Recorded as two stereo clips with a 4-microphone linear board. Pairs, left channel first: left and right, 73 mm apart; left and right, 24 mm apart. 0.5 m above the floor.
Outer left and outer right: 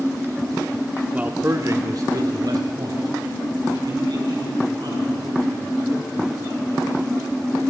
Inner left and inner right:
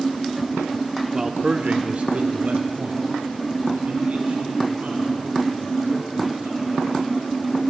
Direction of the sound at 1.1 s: 15° right (ahead or behind).